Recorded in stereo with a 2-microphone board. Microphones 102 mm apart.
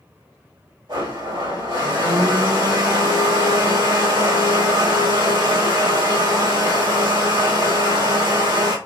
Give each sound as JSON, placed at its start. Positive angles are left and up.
{"t": 0.9, "sound": "a blender", "side_deg": -60, "distance_m": 2.5}